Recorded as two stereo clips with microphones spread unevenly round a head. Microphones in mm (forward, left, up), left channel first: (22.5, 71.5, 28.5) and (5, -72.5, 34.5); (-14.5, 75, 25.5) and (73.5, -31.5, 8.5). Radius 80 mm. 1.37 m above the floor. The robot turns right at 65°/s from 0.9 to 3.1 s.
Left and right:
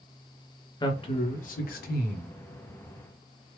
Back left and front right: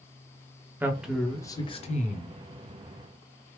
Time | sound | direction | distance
0.8 | a man speaking | 25° left | 0.7 m